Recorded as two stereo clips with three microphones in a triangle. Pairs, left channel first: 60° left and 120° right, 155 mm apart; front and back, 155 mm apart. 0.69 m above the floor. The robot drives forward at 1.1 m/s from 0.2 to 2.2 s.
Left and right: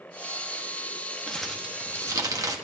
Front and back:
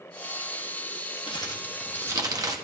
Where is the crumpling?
20° right, 1.1 m; by 2.5 s 150° right, 1.0 m.